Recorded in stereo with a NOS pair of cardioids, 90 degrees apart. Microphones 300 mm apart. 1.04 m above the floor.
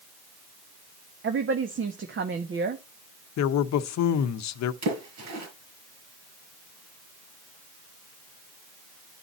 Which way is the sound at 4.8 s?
65° right.